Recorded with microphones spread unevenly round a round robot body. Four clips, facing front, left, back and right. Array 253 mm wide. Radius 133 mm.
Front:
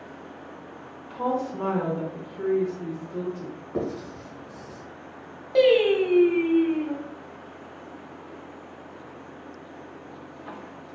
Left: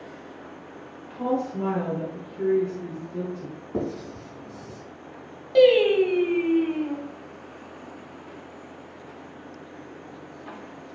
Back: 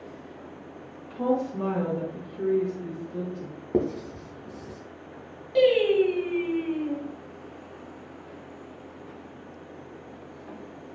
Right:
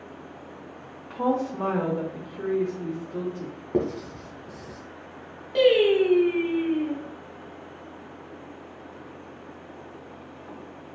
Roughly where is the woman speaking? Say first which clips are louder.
Right 1 dB, back 1 dB; right.